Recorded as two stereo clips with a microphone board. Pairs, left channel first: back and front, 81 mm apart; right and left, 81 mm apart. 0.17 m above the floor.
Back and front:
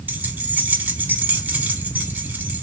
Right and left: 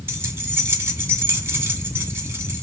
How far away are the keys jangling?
About 1.0 m.